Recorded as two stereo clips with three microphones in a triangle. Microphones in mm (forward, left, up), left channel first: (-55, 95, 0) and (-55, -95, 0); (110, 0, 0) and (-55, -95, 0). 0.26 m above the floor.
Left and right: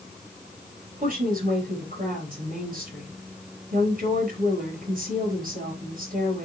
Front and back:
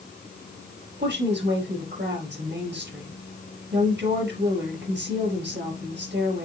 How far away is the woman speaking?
About 5 m.